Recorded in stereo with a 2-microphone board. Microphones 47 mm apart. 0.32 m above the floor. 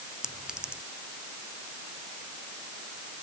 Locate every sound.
0.2 s a clink: 20° right (ahead or behind)